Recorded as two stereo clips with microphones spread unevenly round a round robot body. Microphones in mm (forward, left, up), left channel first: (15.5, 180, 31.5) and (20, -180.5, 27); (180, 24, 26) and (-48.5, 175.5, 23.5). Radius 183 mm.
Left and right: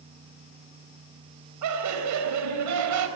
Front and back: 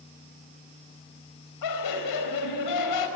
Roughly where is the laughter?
Ahead right.